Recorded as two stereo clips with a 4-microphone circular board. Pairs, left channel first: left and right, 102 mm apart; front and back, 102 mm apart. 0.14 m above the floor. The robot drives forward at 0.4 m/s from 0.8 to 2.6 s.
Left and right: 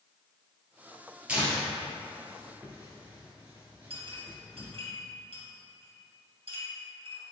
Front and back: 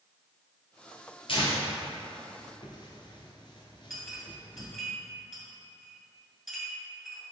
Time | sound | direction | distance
1.3 | tearing paper | 15° right | 1.9 m
3.9 | a clink | 95° right | 2 m